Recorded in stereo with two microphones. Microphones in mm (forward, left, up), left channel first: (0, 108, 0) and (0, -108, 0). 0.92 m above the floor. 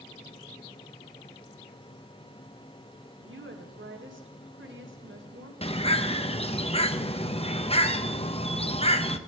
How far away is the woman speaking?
About 2.5 m.